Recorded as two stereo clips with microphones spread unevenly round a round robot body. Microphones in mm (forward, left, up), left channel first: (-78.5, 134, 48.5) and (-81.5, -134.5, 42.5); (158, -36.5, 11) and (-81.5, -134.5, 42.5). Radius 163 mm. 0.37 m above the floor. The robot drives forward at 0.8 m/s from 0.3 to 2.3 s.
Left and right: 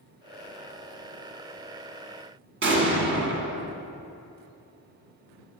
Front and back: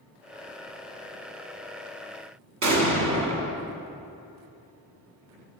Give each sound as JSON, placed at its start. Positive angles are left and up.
{"t": 2.6, "sound": "an explosion", "azimuth_deg": -135, "distance_m": 1.3}